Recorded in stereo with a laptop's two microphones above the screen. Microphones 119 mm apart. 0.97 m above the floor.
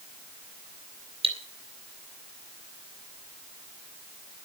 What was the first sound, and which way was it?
Cutlery clinking, 55° right (ahead or behind).